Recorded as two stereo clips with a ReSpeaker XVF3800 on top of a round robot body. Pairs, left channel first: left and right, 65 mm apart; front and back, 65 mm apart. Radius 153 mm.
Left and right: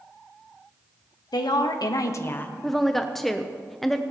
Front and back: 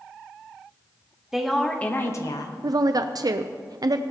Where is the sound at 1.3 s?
100° left, 1.4 m; by 2.5 s 25° left, 1.2 m.